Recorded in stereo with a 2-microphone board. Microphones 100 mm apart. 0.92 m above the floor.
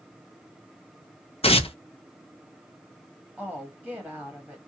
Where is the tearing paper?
75° left (ahead or behind), 0.6 m.